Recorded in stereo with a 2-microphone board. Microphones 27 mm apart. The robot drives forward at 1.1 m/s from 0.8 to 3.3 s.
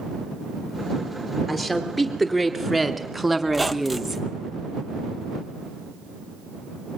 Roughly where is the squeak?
Centre.